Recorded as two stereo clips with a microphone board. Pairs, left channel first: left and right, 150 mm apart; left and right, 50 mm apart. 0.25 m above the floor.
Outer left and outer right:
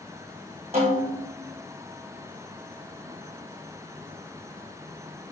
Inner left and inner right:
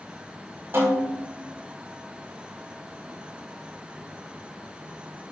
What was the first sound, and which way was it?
A snare drum, 45° right (ahead or behind).